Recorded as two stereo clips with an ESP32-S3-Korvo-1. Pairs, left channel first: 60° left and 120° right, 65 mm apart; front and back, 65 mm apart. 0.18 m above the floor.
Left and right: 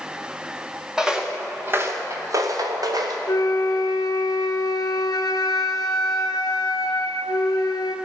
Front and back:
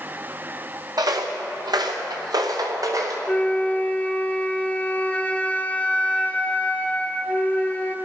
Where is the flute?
70° left, 0.8 m.